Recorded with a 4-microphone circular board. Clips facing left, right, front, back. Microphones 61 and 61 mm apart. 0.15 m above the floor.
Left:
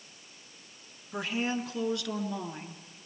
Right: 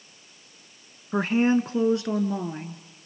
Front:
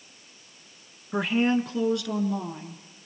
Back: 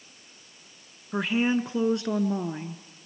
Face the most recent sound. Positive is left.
turn(degrees=-160)